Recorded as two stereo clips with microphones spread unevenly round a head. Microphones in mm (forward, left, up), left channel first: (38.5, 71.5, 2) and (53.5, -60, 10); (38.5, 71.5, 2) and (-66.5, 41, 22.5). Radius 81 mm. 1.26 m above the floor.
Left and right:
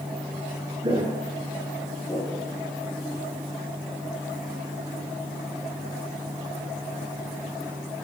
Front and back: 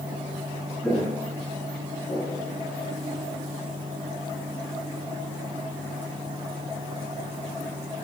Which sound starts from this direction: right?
Footsteps, at 0.8 s.